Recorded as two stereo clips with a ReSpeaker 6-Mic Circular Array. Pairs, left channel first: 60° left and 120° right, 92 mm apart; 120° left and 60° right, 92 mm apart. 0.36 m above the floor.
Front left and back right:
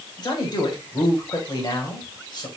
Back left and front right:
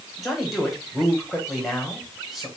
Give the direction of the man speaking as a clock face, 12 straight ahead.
11 o'clock.